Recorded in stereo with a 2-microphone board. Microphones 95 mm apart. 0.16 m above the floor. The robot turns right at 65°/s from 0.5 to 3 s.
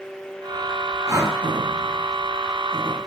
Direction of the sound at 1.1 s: 30° right (ahead or behind).